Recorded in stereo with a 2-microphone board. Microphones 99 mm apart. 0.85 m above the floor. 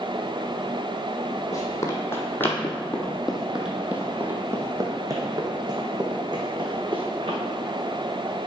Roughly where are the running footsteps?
Left.